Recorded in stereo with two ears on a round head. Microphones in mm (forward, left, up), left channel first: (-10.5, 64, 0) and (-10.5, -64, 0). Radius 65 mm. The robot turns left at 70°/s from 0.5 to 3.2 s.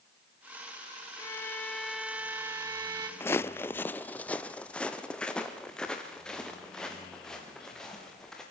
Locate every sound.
1.2 s a violin: 20° left (ahead or behind), 1.2 m; by 3.1 s 30° right (ahead or behind), 1.2 m
3.2 s footsteps: 15° left (ahead or behind), 0.5 m; by 8.4 s 5° left (ahead or behind), 5 m